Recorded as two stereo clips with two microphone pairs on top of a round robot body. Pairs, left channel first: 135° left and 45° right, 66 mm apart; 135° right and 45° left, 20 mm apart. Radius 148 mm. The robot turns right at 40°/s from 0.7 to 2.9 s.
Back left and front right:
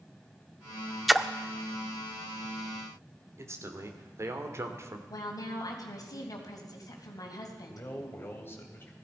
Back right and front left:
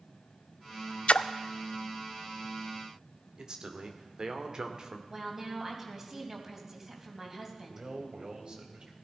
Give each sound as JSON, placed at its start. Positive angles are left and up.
{"t": 1.1, "sound": "a splash", "azimuth_deg": -135, "distance_m": 0.5}
{"t": 3.4, "sound": "a man speaking", "azimuth_deg": 0, "distance_m": 2.0}
{"t": 5.1, "sound": "a woman speaking", "azimuth_deg": 110, "distance_m": 4.0}
{"t": 7.7, "sound": "a man speaking", "azimuth_deg": 85, "distance_m": 3.5}